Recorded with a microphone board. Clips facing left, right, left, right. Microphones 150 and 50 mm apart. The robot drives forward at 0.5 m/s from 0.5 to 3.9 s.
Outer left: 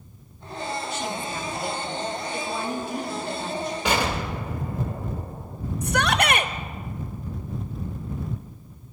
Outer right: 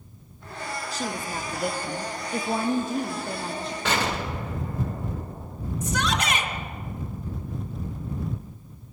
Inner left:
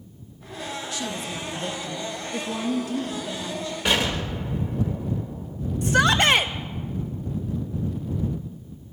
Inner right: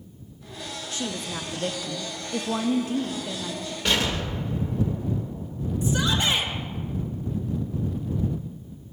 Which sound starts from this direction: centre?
An explosion, at 3.9 s.